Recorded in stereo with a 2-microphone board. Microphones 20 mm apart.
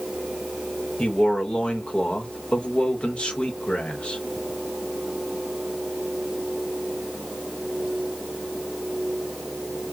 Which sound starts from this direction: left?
A man speaking, at 1.0 s.